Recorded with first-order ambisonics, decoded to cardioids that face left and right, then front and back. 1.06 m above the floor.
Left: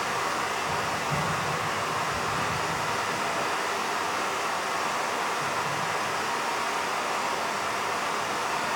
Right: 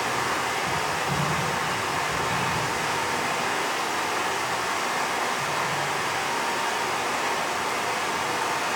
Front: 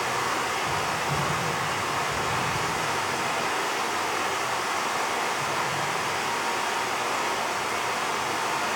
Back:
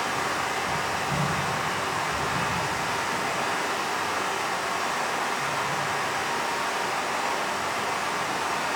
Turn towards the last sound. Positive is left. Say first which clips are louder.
# right 2 dB, even
turn(degrees=-50)